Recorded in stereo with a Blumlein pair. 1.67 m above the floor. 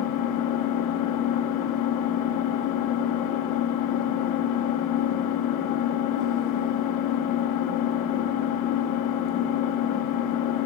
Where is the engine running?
40° left, 1.5 m.